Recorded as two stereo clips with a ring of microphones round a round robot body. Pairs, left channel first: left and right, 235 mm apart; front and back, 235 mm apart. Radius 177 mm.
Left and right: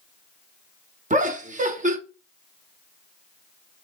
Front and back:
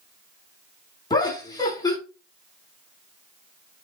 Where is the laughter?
65° right, 0.9 m.